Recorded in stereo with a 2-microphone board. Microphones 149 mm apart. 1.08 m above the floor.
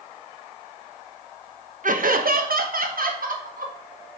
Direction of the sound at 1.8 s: 60° right (ahead or behind).